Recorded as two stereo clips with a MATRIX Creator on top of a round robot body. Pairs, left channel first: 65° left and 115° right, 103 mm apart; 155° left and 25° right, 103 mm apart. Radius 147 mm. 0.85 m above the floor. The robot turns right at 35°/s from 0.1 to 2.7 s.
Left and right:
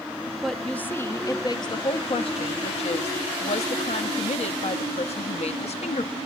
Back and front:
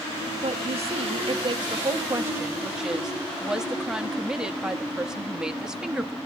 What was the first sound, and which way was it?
A woman speaking, 20° right.